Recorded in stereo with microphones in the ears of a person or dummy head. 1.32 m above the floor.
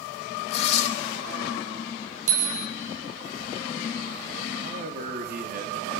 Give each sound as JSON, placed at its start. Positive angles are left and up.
{"t": 0.5, "sound": "tearing paper", "side_deg": 40, "distance_m": 4.0}
{"t": 2.3, "sound": "a bicycle bell", "side_deg": -45, "distance_m": 5.0}
{"t": 4.6, "sound": "a man speaking", "side_deg": -55, "distance_m": 3.5}